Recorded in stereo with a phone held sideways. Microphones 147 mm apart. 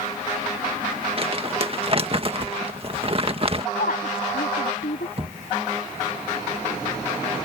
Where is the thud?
40° right (ahead or behind).